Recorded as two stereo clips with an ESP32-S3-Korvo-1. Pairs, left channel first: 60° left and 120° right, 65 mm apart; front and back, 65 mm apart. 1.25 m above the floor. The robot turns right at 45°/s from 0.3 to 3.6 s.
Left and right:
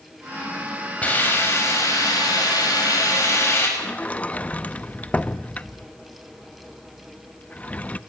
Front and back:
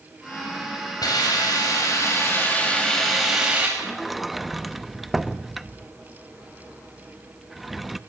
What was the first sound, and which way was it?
A hiss, 10° right.